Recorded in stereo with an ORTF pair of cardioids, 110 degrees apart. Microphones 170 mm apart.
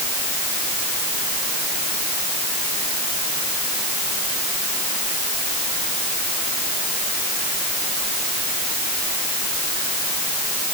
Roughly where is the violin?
No violin in this recording.